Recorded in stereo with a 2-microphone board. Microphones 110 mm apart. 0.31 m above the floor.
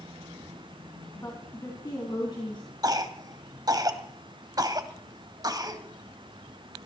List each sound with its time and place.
1.1 s a woman speaking: 30° left (ahead or behind), 3 m; by 2.6 s 45° left (ahead or behind), 3.5 m
2.8 s a cough: 35° right (ahead or behind), 1.9 m